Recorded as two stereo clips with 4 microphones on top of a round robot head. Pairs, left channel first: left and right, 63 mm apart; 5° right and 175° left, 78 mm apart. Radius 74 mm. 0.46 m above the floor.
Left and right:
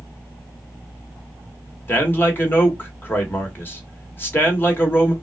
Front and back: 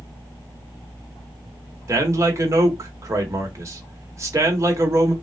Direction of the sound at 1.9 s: 140° left.